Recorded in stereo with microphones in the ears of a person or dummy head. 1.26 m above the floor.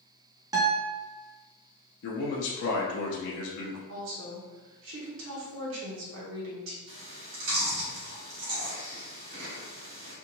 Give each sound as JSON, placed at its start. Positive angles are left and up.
{"t": 0.5, "sound": "a guitar", "side_deg": -20, "distance_m": 0.5}
{"t": 2.0, "sound": "a man speaking", "side_deg": 70, "distance_m": 0.7}
{"t": 3.9, "sound": "a woman speaking", "side_deg": -75, "distance_m": 1.3}
{"t": 6.9, "sound": "chewing", "side_deg": -65, "distance_m": 1.5}